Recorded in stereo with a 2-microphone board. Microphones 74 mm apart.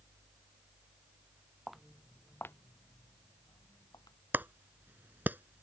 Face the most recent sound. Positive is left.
turn(degrees=-30)  # may be behind; listen again after turning